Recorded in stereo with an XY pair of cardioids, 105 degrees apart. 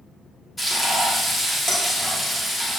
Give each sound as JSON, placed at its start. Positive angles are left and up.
{"t": 0.6, "sound": "frying", "azimuth_deg": 15, "distance_m": 4.5}